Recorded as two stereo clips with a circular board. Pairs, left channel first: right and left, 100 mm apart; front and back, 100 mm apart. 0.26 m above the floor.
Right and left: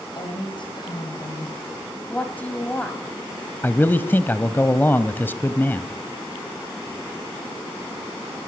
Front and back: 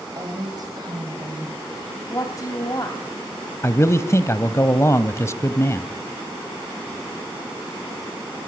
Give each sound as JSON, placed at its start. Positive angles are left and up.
{"t": 0.1, "sound": "a woman speaking", "azimuth_deg": -130, "distance_m": 7.5}
{"t": 2.1, "sound": "a woman speaking", "azimuth_deg": -25, "distance_m": 1.9}
{"t": 3.6, "sound": "a man speaking", "azimuth_deg": -35, "distance_m": 1.1}